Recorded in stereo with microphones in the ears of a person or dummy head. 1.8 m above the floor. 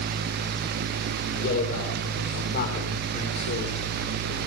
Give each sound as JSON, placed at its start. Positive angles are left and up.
{"t": 1.3, "sound": "a man speaking", "side_deg": 70, "distance_m": 6.5}